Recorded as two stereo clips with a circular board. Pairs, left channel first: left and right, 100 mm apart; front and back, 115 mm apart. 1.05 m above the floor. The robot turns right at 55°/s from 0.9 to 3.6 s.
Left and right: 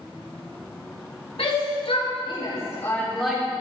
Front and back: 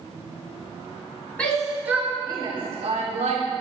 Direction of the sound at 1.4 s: 75° left.